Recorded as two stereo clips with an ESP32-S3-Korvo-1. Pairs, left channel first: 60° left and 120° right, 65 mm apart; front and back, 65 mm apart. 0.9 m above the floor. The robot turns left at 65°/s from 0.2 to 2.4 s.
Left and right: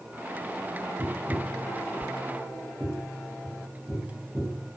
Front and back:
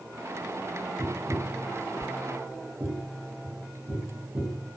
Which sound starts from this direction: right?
Tapping, at 1.0 s.